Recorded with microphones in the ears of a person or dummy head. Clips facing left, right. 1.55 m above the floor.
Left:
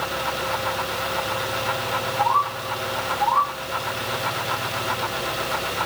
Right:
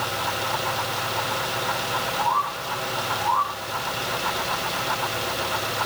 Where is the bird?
25° right (ahead or behind), 3 m.